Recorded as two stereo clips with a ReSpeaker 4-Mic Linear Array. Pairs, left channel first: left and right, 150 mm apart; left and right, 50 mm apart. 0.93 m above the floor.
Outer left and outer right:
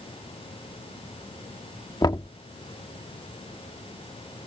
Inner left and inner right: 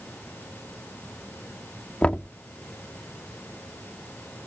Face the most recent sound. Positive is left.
turn(degrees=25)  # may be behind; listen again after turning